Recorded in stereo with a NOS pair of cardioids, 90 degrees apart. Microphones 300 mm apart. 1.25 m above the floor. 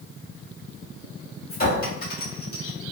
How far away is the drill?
No drill in this recording.